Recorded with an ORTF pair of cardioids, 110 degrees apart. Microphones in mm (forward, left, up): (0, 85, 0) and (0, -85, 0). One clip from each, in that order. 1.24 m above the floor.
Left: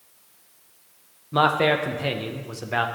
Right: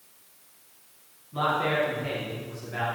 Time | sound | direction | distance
1.3 | a man speaking | 70° left | 0.5 m